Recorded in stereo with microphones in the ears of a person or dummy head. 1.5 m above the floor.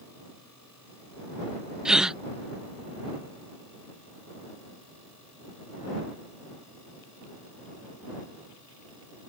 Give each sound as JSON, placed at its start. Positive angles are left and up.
{"t": 1.9, "sound": "a gasp", "side_deg": -10}